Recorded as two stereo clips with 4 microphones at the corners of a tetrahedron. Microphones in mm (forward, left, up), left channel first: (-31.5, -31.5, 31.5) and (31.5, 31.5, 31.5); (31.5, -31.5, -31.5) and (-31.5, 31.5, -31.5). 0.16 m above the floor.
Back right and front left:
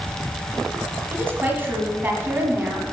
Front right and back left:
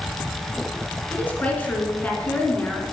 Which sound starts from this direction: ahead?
A woman speaking, at 1.1 s.